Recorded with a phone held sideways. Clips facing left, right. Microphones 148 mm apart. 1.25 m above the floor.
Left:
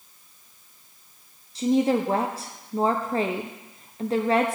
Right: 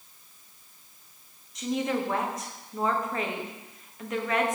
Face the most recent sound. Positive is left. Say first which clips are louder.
# left 7 dB
turn(degrees=30)  # may be behind; listen again after turning